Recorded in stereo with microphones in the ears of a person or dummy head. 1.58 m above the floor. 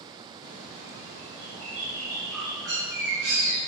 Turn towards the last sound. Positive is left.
turn(degrees=-5)  # may be behind; listen again after turning